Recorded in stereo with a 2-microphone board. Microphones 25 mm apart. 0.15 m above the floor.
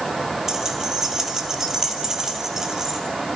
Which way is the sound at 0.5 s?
25° right (ahead or behind).